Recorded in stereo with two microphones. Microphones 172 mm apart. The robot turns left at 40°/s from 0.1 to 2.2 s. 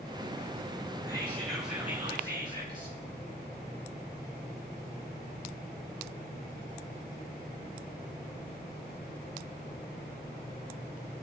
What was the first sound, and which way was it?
Whispering, 20° left.